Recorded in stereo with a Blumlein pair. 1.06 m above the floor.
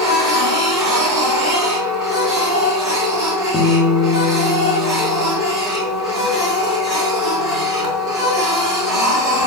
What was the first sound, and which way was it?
A machine running, 15° right.